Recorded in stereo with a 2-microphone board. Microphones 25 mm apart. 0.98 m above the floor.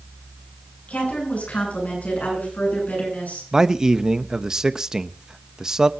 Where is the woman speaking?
80° left, 9.5 m.